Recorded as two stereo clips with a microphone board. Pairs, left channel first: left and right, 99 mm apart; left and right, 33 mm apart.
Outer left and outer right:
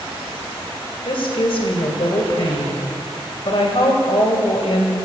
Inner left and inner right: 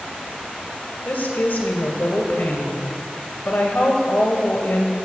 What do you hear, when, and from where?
1.1 s a woman speaking: 65° left (ahead or behind), 2.5 m